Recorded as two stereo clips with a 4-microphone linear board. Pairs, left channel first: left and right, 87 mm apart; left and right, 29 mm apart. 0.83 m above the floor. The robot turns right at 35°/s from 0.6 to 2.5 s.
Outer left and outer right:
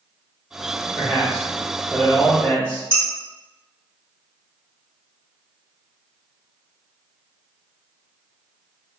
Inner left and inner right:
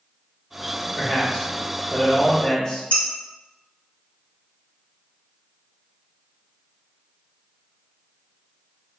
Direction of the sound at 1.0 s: 10° left.